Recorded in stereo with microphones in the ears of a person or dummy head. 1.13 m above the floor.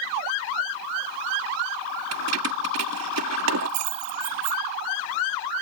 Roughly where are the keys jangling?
Right.